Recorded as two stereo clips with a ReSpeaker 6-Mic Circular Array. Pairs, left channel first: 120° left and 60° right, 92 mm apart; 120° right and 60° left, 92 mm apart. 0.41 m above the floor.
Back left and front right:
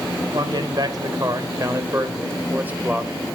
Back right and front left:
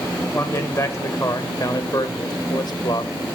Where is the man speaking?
65° right, 1.7 m; by 3.1 s 135° right, 1.6 m.